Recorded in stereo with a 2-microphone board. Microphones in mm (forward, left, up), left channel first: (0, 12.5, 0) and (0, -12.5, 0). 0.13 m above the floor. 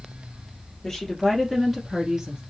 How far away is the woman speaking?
About 1.9 m.